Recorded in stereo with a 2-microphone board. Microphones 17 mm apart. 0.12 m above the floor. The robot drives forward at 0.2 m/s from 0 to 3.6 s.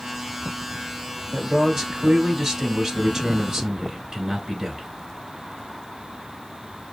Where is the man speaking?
25° right (ahead or behind), 1.3 m; by 4.9 s 30° right (ahead or behind), 1.2 m.